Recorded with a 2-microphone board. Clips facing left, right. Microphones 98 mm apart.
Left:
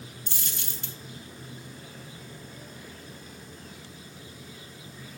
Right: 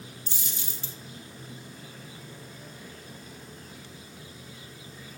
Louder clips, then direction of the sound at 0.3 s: Left 1 dB; 70° left (ahead or behind).